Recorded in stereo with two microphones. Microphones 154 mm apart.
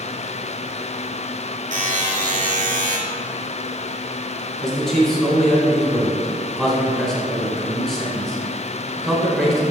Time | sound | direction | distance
1.7 | a buzzer | 55° right (ahead or behind) | 1.1 m
4.6 | a man speaking | 5° left (ahead or behind) | 1.1 m